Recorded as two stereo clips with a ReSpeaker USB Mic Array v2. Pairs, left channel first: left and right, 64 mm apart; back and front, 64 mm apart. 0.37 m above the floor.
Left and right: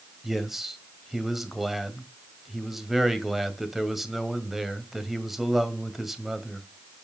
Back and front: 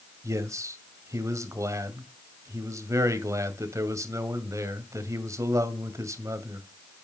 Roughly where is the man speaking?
Ahead.